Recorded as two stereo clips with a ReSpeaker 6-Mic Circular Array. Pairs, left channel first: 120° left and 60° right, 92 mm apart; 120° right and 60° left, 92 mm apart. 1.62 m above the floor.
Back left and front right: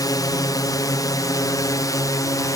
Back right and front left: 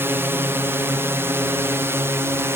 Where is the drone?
110° left; by 2.6 s 105° left.